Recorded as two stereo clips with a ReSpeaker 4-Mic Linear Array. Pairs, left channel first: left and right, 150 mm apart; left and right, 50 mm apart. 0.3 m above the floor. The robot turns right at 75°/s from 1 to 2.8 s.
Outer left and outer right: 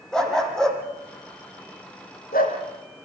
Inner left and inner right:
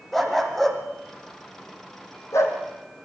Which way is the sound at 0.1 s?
5° left (ahead or behind).